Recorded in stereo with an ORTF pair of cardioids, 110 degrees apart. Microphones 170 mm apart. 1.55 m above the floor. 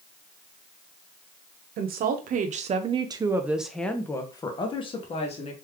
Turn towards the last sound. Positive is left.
turn(degrees=40)